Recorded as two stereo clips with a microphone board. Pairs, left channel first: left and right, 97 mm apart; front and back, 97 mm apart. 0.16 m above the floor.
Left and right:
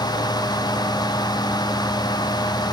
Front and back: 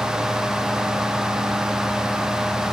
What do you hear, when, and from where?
Only background noise.